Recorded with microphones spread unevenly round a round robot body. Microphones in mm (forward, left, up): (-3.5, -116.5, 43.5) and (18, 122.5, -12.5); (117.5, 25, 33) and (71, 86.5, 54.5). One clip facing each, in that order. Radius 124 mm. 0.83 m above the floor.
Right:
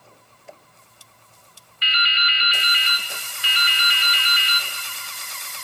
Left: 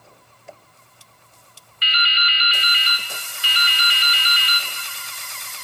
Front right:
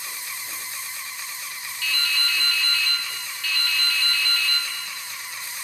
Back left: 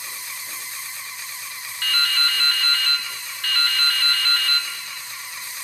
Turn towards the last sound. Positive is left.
turn(degrees=85)